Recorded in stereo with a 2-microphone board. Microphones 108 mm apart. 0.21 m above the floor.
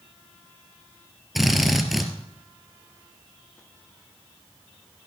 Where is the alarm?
I don't hear an alarm.